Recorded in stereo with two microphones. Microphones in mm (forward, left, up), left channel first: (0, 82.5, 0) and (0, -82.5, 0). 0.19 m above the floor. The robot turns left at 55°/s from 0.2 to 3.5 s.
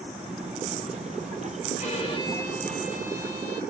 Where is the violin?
55° left, 3.5 m; by 3.6 s 35° right, 3.5 m.